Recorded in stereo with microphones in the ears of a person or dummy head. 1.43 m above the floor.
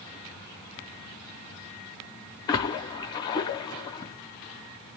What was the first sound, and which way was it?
A splash, 30° left (ahead or behind).